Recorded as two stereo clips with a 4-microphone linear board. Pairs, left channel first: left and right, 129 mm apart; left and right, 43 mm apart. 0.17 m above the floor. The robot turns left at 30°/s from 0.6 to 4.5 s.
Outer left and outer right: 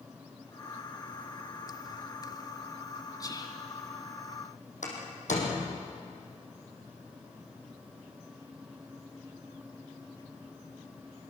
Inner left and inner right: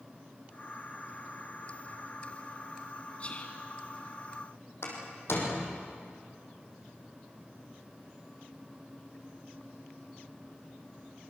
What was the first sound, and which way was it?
Whispering, 30° left (ahead or behind).